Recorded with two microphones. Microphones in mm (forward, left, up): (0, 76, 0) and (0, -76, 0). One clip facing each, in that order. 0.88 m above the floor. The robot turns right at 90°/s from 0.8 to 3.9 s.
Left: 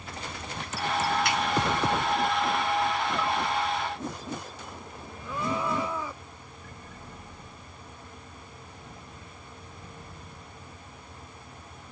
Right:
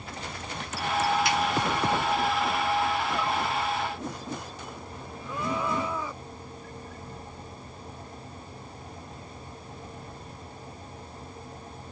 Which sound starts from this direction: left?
A finger snap, at 1.2 s.